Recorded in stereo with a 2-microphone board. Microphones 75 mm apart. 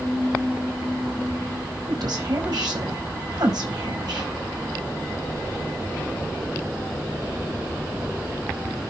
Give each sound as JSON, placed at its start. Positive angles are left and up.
{"t": 1.9, "sound": "a woman speaking", "side_deg": -65, "distance_m": 5.0}